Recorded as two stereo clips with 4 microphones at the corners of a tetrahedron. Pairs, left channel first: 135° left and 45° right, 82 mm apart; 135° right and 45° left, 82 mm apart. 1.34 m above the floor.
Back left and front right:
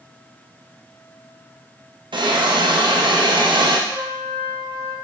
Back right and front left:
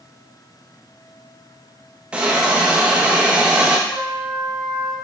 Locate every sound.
2.1 s a hiss: 30° right, 0.7 m
3.9 s a trumpet: 155° right, 2 m